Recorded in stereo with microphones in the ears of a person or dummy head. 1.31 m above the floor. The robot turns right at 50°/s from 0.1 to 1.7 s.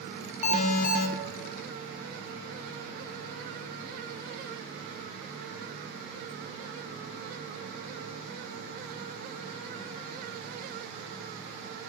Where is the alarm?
50° left, 0.7 m; by 1.1 s 85° left, 0.7 m.